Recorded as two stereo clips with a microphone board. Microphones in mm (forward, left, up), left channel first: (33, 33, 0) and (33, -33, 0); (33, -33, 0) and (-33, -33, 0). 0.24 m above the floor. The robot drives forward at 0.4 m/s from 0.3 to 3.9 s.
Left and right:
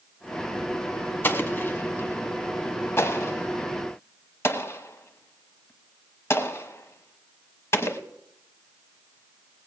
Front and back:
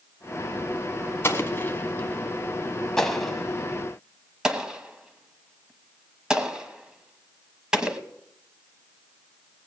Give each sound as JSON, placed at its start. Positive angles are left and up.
{"t": 1.2, "sound": "an explosion", "azimuth_deg": 40, "distance_m": 1.3}